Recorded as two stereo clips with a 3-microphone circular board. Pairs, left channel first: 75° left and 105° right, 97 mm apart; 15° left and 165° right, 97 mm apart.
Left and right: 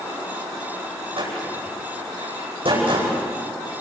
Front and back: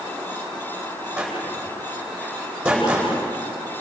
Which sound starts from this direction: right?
A door slam, at 1.2 s.